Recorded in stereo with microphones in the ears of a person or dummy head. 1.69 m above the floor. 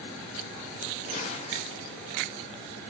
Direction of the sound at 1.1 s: 35° left (ahead or behind).